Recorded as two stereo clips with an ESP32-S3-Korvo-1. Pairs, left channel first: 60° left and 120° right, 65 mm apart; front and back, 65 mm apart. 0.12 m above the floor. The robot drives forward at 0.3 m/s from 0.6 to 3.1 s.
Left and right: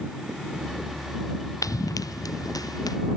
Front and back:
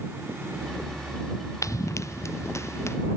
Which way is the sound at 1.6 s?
30° left.